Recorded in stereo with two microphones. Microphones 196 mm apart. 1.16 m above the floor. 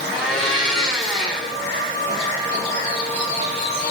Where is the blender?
5° left (ahead or behind), 3.5 m.